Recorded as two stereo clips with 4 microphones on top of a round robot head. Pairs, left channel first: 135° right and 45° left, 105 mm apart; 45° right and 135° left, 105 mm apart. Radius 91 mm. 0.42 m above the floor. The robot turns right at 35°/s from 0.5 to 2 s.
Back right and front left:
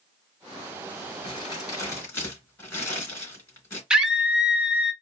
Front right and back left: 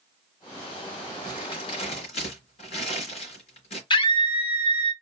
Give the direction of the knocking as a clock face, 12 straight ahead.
I don't hear knocking.